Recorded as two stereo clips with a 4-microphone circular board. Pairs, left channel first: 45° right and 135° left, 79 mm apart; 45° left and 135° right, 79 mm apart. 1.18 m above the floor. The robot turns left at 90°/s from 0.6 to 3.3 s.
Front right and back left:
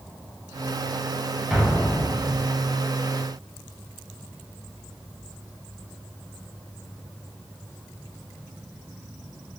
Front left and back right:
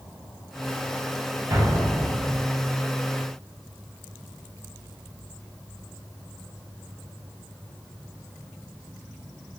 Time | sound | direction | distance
1.5 | an explosion | 145° right | 0.8 m